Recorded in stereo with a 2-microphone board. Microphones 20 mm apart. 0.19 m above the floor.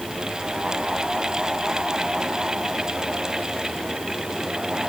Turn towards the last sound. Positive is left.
No sound to turn to.